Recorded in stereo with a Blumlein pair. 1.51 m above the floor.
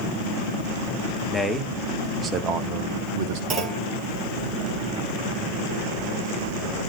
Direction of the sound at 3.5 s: 30° right.